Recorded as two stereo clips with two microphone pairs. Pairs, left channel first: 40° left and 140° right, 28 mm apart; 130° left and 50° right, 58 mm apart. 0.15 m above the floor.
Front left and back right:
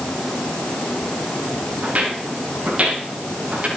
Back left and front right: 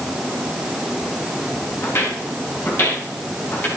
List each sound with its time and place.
1.8 s footsteps: straight behind, 5.5 m; by 3.7 s 175° right, 6.5 m